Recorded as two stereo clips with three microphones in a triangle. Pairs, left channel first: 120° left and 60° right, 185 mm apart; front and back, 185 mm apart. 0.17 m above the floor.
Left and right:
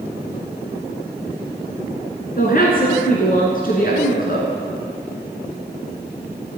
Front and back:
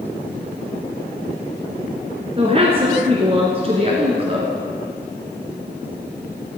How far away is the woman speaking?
About 2 m.